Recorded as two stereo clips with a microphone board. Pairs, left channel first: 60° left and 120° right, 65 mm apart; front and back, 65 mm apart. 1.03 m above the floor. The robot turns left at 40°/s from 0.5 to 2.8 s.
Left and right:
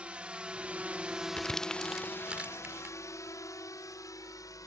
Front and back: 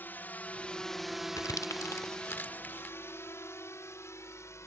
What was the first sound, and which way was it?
A drone, 55° right.